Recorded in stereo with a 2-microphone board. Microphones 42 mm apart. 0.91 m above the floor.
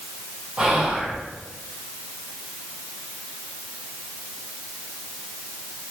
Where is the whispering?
20° right (ahead or behind), 0.9 m.